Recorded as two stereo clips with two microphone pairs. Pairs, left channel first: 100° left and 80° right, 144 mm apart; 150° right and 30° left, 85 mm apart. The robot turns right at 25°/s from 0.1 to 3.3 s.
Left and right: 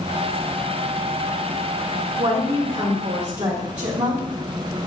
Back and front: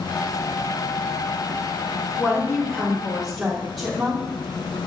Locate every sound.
2.2 s a woman speaking: 80° right, 2.5 m; by 4.2 s 55° right, 2.5 m